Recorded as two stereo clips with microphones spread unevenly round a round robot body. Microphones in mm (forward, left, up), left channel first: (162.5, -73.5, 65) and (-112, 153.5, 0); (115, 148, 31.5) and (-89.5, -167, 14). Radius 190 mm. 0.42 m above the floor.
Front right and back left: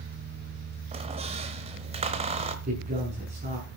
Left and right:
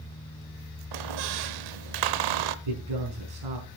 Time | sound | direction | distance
0.9 | a squeak | 150° right | 0.8 m
2.6 | a man speaking | 150° right | 5 m